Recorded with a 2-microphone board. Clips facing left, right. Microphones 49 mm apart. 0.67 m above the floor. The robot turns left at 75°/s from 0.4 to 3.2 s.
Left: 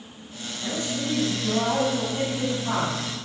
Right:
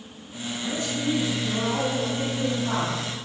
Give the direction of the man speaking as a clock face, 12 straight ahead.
7 o'clock.